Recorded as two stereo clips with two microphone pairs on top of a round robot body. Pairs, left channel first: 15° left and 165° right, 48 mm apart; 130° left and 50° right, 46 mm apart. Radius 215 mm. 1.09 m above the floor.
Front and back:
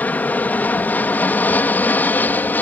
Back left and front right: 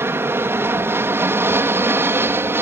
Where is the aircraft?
40° right; by 2.6 s 35° right.